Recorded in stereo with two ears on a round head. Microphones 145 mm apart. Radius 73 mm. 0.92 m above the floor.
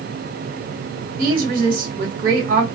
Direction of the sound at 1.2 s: 50° right (ahead or behind).